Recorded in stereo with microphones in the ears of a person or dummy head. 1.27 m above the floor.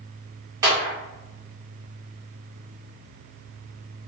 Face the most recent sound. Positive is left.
turn(degrees=-20)  # may be behind; listen again after turning